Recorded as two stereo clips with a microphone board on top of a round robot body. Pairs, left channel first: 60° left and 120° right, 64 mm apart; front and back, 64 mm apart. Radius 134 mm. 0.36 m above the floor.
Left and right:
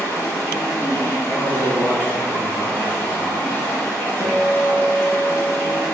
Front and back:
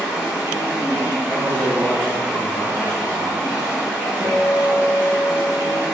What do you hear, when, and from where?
0.0 s running water: 110° left, 1.2 m
1.3 s a man speaking: 55° left, 1.2 m
4.2 s a guitar: 105° left, 0.6 m